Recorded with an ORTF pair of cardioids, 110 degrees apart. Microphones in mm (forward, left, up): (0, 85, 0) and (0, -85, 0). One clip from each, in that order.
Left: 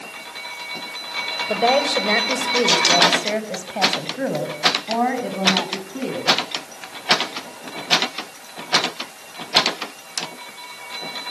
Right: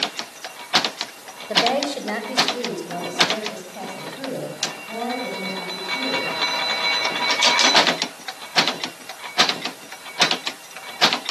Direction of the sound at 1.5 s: 30° left.